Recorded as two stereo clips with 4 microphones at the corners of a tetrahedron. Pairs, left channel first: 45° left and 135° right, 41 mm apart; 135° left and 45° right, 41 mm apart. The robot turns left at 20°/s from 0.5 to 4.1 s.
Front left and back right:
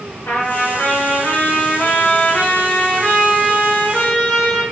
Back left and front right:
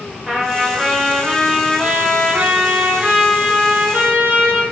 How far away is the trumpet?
About 2 m.